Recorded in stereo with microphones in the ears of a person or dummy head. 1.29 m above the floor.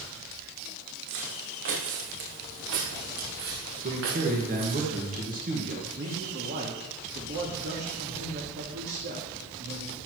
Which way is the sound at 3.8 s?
40° right (ahead or behind).